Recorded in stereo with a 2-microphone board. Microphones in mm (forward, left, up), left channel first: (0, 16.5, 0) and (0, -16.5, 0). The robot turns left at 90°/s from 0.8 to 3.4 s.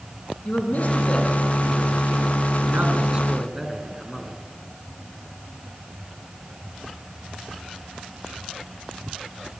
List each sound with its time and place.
0.5 s a man speaking: 55° left (ahead or behind), 4.5 m; by 4.3 s 5° right (ahead or behind), 4.5 m